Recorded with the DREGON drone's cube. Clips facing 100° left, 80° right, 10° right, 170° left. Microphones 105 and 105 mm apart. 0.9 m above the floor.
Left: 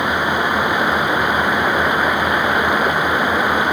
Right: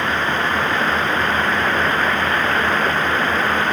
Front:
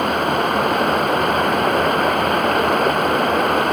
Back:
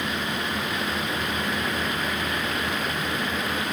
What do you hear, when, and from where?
0.0 s running water: 25° left